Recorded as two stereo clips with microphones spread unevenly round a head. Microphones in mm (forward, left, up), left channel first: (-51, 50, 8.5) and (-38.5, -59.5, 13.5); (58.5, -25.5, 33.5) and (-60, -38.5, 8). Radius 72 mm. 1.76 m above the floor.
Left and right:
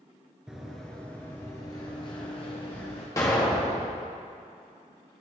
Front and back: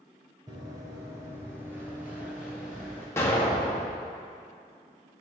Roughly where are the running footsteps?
Behind right.